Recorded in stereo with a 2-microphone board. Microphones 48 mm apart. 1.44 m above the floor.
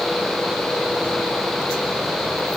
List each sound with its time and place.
Only background noise.